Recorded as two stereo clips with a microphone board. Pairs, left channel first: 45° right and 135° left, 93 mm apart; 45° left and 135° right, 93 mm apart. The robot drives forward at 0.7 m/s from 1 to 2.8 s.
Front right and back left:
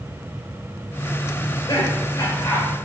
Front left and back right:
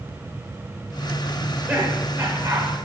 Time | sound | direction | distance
1.4 | laughter | 60° right | 1.9 m